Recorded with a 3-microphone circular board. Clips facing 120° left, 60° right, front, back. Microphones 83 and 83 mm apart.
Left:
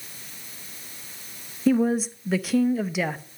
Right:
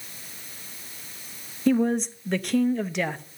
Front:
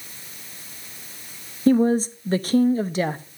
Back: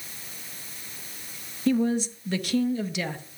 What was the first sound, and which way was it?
A woman speaking, 35° left.